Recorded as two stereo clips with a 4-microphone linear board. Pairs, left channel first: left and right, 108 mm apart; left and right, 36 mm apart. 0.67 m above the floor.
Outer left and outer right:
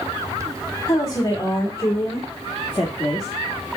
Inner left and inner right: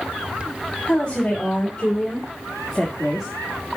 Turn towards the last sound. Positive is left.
turn(degrees=0)  # may be behind; listen again after turning